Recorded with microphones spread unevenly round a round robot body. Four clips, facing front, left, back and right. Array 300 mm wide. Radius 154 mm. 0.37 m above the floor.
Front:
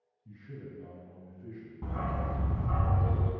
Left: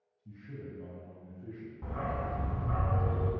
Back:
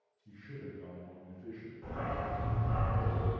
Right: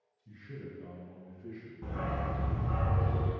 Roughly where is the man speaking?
Ahead left.